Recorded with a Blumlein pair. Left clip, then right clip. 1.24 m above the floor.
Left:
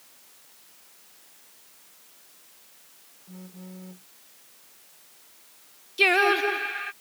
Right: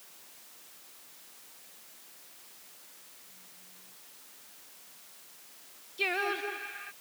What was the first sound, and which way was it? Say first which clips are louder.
A phone buzzing: left 9 dB; 45° left.